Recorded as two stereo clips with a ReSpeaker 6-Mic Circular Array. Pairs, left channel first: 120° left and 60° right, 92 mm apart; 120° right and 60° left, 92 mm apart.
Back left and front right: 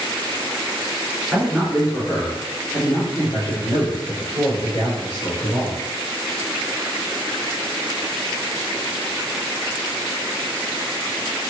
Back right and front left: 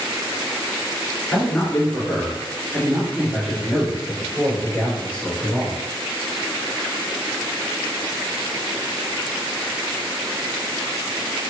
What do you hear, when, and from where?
1.3 s a man speaking: 140° right, 1.4 m; by 5.8 s 135° left, 3.5 m